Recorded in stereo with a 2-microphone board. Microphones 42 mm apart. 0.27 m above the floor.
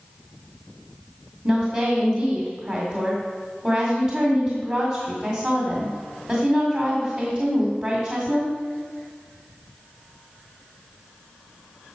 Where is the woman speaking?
35° right (ahead or behind), 1.8 m.